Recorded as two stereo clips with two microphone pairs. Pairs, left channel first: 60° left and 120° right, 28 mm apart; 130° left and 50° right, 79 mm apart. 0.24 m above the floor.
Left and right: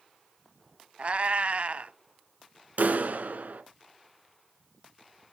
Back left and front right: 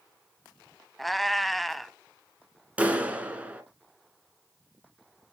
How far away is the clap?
About 2 m.